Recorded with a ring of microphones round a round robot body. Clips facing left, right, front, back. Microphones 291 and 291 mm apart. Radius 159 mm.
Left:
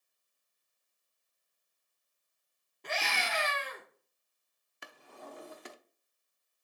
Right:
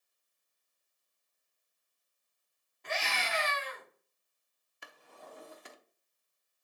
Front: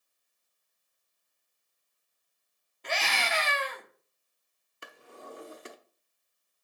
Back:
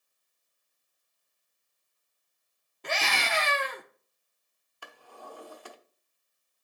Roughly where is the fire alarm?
No fire alarm in this recording.